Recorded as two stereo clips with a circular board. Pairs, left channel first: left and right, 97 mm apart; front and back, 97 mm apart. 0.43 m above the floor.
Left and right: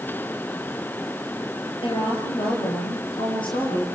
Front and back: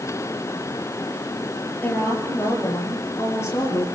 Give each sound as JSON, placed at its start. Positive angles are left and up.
{"t": 1.8, "sound": "a woman speaking", "azimuth_deg": 70, "distance_m": 9.5}